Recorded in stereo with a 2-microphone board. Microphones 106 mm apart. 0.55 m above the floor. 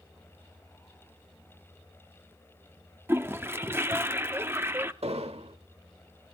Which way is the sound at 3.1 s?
20° right (ahead or behind).